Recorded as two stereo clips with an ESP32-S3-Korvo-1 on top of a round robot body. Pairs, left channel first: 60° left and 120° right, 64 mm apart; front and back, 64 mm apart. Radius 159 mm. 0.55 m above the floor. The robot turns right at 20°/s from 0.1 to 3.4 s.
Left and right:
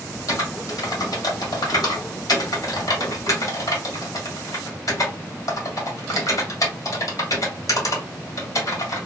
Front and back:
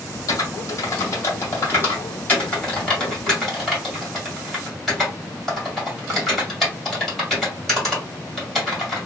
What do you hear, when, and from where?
0.3 s typing on a keyboard: 20° left, 2 m; by 9.1 s 85° left, 2 m